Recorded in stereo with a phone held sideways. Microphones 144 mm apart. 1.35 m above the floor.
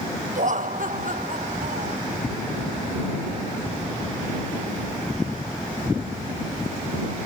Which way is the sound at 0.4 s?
65° right (ahead or behind).